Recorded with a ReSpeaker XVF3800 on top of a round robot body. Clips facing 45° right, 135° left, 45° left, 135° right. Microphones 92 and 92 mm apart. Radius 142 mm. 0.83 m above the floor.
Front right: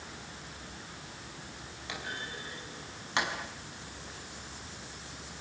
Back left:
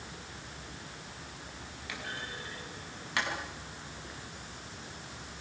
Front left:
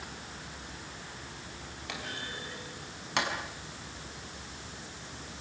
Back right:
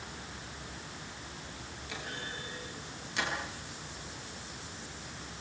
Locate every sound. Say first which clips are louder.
1.9 s a clunk: front right 1 dB, front left 1 dB; 20° left, 5.5 m